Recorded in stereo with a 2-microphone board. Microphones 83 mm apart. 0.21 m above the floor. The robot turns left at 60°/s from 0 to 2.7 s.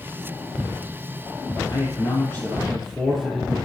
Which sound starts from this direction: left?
A man speaking, at 1.7 s.